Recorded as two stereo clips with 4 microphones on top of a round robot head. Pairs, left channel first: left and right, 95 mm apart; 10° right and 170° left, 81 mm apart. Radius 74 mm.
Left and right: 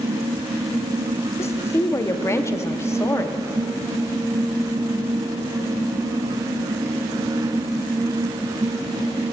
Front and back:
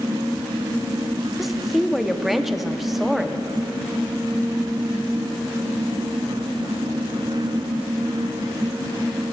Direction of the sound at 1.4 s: 90° left.